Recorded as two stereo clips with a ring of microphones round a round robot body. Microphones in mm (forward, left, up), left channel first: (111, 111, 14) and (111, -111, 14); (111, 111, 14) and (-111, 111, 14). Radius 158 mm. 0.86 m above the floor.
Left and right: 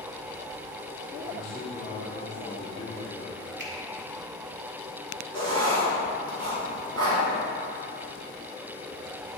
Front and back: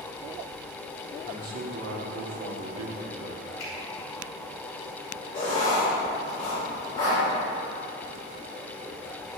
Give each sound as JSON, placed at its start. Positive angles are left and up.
{"t": 1.3, "sound": "a man speaking", "azimuth_deg": 165, "distance_m": 1.5}
{"t": 3.6, "sound": "a finger snap", "azimuth_deg": -50, "distance_m": 2.0}
{"t": 5.3, "sound": "writing", "azimuth_deg": -75, "distance_m": 2.5}